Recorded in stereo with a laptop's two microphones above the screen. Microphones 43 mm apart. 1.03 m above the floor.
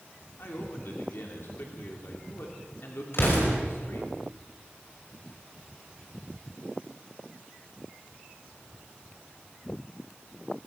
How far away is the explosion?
About 5 m.